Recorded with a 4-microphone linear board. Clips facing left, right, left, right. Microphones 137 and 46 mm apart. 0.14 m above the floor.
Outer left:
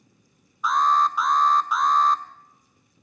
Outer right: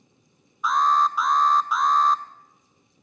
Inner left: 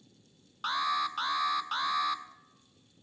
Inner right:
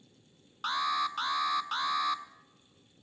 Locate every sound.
0.6 s an alarm: centre (ahead or behind), 0.7 m